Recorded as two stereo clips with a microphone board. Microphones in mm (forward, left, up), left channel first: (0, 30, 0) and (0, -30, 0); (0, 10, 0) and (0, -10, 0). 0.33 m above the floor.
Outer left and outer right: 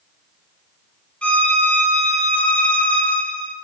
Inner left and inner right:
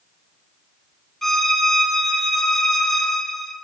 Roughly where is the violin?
Centre.